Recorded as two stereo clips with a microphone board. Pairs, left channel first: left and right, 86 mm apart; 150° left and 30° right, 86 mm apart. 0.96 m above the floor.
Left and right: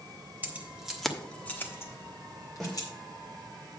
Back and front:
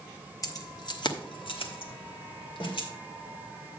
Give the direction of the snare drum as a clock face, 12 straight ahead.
6 o'clock.